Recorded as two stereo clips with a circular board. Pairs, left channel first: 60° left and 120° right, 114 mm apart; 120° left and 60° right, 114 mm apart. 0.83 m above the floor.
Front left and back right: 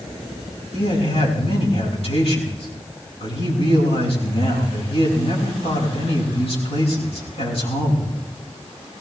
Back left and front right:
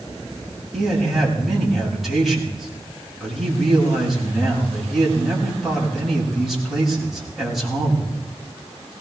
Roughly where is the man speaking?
Ahead left.